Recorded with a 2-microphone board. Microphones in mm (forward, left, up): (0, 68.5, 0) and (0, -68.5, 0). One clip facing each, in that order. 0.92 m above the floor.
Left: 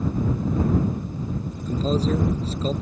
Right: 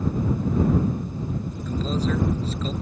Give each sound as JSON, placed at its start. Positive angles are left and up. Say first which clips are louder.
{"t": 1.7, "sound": "a man speaking", "louder": "left 3 dB", "side_deg": 30}